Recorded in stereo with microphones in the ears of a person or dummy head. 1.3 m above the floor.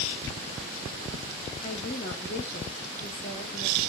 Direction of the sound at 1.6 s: 40° left (ahead or behind).